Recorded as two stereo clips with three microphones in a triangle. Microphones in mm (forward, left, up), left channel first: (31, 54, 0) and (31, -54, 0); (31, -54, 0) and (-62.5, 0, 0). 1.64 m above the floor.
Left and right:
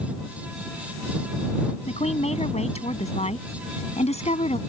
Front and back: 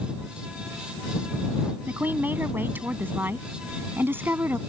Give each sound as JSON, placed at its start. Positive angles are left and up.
{"t": 1.9, "sound": "a woman speaking", "azimuth_deg": 80}